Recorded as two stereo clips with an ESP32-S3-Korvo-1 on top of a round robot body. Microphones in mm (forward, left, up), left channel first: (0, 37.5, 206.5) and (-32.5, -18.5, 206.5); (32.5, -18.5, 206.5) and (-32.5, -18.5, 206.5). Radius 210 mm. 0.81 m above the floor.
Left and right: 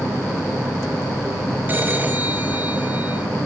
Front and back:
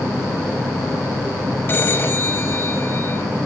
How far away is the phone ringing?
About 3 m.